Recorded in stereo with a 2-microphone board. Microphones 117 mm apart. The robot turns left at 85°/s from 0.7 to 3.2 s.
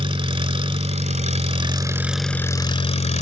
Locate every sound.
0.0 s an engine running: 55° right, 0.7 m; by 3.2 s 95° left, 0.7 m